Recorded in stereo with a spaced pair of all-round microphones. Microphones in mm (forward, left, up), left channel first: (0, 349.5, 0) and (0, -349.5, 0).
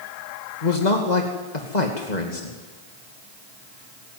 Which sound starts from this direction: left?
A man speaking, at 0.6 s.